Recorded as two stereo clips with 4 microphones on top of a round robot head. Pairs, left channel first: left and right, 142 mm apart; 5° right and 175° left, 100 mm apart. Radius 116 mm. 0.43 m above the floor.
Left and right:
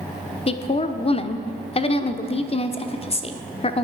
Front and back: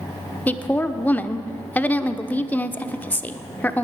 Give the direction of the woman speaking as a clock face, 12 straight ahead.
10 o'clock.